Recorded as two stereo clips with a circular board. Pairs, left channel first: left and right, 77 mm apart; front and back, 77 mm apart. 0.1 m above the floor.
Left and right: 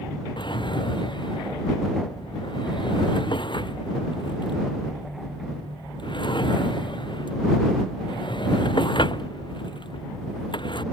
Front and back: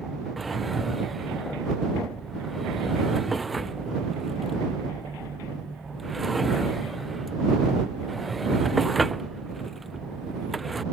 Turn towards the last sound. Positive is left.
turn(degrees=90)